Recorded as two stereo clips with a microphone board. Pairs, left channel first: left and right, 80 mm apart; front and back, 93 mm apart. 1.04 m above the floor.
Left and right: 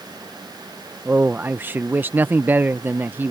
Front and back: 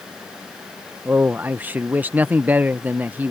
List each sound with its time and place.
1.1 s a man speaking: 125° right